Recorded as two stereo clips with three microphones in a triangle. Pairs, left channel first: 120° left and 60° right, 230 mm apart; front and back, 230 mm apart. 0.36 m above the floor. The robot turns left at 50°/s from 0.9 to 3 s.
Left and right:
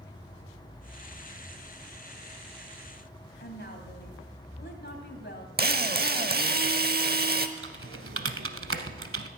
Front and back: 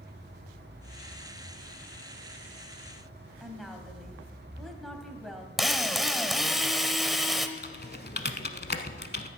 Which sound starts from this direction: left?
A woman speaking, at 3.4 s.